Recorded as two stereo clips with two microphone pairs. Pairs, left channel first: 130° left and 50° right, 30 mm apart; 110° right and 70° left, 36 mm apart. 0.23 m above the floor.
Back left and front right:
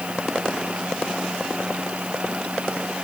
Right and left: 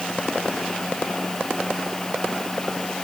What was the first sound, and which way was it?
Only background noise.